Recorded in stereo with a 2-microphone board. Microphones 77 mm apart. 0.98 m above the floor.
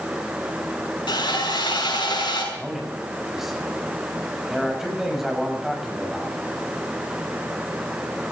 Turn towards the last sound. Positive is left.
turn(degrees=-5)  # may be behind; listen again after turning